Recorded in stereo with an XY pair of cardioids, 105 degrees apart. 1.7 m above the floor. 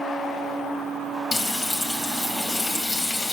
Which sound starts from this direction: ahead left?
Frying, at 1.3 s.